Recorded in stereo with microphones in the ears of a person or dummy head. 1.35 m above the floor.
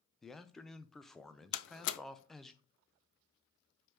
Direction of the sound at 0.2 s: 5° left (ahead or behind).